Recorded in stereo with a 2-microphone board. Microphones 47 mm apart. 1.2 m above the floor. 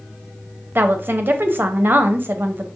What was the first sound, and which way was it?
A woman speaking, 45° right (ahead or behind).